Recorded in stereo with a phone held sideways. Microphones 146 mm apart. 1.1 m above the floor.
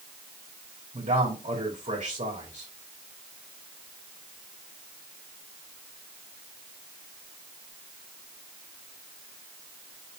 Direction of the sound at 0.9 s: 55° right (ahead or behind).